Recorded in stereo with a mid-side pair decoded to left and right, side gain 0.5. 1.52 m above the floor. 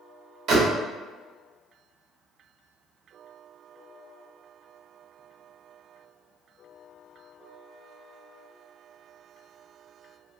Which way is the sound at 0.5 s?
65° right.